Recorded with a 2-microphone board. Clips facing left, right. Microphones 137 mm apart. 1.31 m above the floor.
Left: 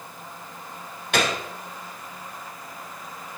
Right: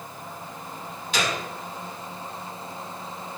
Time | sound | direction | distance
1.1 | a gunshot | 60° left (ahead or behind) | 0.9 m